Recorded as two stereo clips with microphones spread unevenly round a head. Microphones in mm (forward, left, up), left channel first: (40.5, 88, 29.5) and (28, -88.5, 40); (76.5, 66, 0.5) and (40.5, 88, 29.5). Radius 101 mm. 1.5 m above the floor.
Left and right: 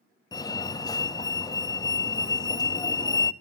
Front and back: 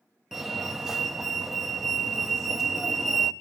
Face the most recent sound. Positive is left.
turn(degrees=30)